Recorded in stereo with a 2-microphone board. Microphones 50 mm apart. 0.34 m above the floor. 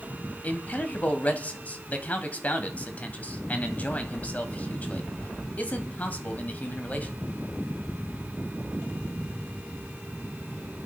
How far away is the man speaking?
About 1.7 m.